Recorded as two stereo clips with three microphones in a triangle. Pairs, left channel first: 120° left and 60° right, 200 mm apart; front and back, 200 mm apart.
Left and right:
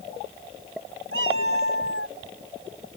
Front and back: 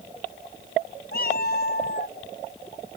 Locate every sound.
1.1 s a cat meowing: 45° right